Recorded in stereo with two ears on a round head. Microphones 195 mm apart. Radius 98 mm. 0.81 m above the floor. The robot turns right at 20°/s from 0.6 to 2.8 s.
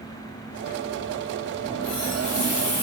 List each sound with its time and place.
1.6 s a running tap: 55° left (ahead or behind), 3 m; by 2.8 s 80° left, 3 m